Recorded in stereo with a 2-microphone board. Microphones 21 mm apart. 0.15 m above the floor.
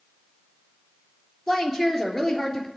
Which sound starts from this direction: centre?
A woman speaking, at 1.5 s.